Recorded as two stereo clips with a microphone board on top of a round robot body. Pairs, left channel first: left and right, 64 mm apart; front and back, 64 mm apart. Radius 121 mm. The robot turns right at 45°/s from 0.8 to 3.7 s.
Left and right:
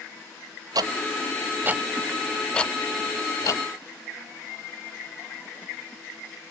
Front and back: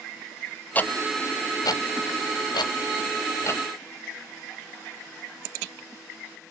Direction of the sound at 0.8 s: 65° right.